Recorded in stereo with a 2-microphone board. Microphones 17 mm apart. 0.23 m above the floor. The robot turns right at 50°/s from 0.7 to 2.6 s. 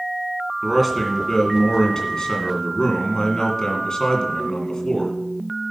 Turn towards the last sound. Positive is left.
turn(degrees=95)